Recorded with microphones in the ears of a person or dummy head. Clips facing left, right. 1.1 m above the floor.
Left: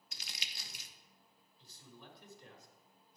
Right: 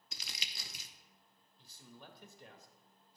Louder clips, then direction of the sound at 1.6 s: Right 1 dB; 55° right (ahead or behind).